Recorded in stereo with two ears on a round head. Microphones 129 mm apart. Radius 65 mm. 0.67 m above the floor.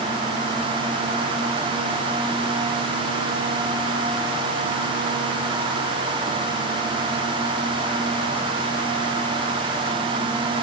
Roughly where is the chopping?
I don't hear chopping.